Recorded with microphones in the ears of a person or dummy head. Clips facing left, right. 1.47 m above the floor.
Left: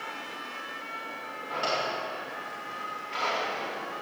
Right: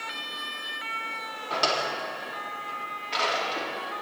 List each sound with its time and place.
1.5 s a drawer: 70° right (ahead or behind), 1.9 m